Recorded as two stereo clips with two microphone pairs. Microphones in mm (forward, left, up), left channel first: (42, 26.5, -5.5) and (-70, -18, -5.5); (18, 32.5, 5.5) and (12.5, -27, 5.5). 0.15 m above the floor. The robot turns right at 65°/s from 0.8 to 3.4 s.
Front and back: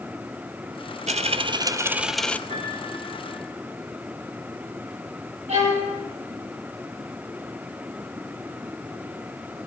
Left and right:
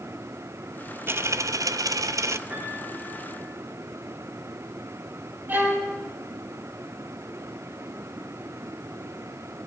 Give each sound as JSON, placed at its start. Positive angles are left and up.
{"t": 1.1, "sound": "a dropped coin", "azimuth_deg": -140, "distance_m": 0.5}
{"t": 2.5, "sound": "a piano", "azimuth_deg": -150, "distance_m": 6.5}
{"t": 5.5, "sound": "a violin", "azimuth_deg": -145, "distance_m": 5.0}